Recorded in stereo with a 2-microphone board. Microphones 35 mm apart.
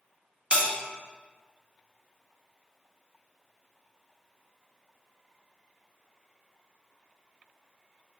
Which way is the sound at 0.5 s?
35° right (ahead or behind).